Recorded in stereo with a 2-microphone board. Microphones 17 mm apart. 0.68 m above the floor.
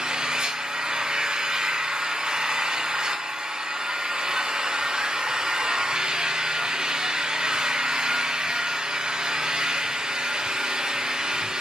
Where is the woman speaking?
No woman speaking in this recording.